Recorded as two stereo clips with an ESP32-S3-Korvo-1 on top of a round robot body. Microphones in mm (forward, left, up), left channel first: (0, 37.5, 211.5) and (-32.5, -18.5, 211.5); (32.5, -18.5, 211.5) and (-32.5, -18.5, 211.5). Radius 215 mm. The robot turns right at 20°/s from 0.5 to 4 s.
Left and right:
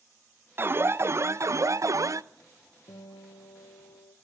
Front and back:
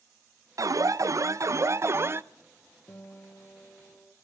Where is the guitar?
60° left, 2.0 m; by 4.2 s 85° left, 2.0 m.